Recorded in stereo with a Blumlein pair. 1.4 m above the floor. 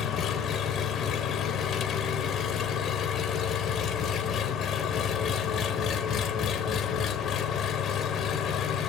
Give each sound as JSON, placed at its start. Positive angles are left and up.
{"t": 0.0, "sound": "an engine running", "azimuth_deg": 30, "distance_m": 0.7}